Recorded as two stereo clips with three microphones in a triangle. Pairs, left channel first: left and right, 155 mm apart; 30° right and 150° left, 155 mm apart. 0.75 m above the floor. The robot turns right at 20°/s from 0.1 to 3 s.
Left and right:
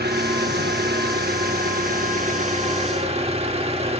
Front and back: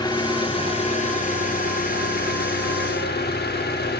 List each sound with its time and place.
0.0 s an engine running: 95° right, 0.9 m; by 4.0 s 35° right, 0.9 m